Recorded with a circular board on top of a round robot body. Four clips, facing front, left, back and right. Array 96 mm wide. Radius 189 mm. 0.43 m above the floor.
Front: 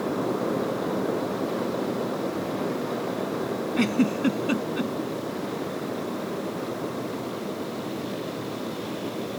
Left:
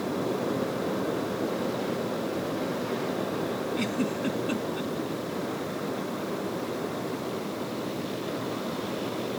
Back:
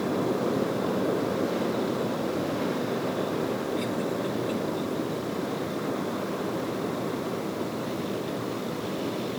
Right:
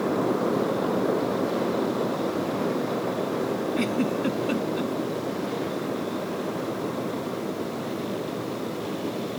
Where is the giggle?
15° right.